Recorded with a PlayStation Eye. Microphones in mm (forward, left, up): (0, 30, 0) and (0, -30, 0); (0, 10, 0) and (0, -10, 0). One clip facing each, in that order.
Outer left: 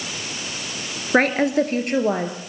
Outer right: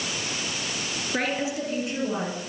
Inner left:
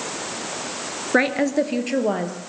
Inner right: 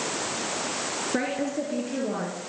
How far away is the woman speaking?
About 2.5 m.